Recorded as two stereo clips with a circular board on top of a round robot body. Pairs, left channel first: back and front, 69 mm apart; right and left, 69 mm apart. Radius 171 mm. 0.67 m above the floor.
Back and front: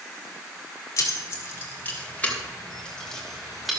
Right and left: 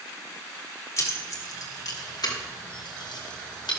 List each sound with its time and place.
1.0 s keys jangling: 135° right, 2 m; by 3.7 s 90° right, 2.5 m